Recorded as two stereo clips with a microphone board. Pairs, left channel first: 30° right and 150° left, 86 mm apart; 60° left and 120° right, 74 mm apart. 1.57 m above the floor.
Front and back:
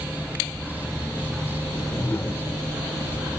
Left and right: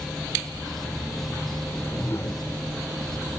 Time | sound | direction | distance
1.6 | a whoosh | 25° left | 1.8 m